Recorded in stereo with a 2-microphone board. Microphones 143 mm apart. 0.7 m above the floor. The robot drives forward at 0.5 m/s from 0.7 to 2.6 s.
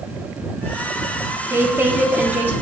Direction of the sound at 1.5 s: 15° right (ahead or behind).